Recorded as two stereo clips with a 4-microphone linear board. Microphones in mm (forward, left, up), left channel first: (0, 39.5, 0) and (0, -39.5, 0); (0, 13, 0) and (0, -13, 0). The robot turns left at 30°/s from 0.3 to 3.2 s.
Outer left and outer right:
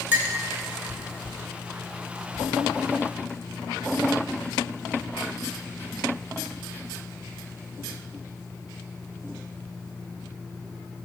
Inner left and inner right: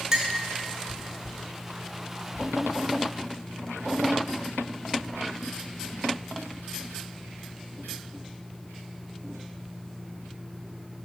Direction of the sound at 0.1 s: 25° right (ahead or behind).